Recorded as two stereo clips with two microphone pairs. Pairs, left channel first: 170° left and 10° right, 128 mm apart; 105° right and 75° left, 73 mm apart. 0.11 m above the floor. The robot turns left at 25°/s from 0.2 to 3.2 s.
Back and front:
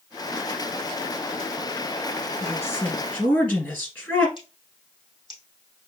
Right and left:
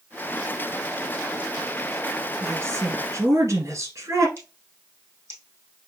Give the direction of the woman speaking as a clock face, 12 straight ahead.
8 o'clock.